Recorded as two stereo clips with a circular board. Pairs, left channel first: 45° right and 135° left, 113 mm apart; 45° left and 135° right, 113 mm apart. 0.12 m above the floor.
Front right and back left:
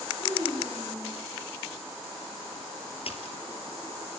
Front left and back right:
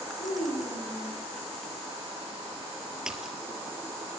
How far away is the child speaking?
About 9 m.